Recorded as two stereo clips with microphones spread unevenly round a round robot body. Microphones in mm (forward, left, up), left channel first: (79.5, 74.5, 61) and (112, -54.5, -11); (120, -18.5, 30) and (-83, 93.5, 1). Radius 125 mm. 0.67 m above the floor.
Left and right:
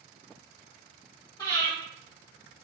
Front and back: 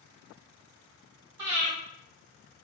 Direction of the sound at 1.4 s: 175° left.